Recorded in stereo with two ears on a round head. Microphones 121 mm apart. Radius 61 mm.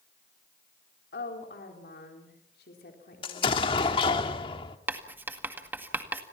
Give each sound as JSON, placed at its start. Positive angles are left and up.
{"t": 1.1, "sound": "a woman speaking", "side_deg": 85, "distance_m": 4.0}
{"t": 3.2, "sound": "an explosion", "side_deg": 40, "distance_m": 1.6}
{"t": 4.9, "sound": "writing", "side_deg": -15, "distance_m": 1.9}